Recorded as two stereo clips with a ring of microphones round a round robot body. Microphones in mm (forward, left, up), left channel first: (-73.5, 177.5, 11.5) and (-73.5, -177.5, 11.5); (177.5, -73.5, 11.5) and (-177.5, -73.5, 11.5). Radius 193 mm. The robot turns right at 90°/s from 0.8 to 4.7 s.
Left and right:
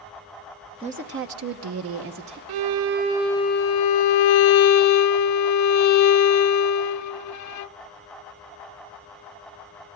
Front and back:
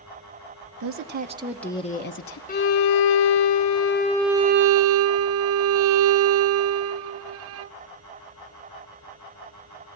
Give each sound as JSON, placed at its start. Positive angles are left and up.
{"t": 0.8, "sound": "a woman speaking", "azimuth_deg": -160, "distance_m": 1.0}
{"t": 2.5, "sound": "a violin", "azimuth_deg": -70, "distance_m": 0.6}